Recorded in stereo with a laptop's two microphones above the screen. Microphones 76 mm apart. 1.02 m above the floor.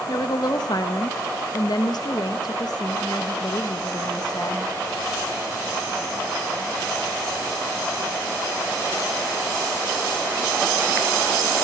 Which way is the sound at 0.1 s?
60° left (ahead or behind).